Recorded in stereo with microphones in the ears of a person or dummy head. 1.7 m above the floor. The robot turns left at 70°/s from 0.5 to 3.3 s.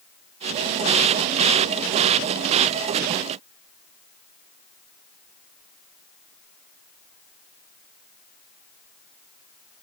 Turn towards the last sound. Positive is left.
No sound to turn to.